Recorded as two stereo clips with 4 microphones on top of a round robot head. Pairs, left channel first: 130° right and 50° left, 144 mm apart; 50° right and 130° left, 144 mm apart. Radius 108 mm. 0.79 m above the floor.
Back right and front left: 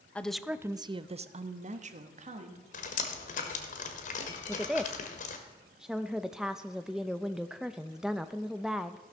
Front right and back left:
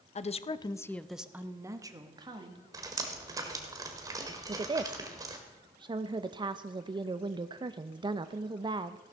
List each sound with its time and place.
0.1 s a woman speaking: 55° right, 0.7 m; by 2.6 s 80° left, 1.5 m
2.7 s dripping: 165° right, 1.3 m
4.5 s a woman speaking: 130° left, 0.5 m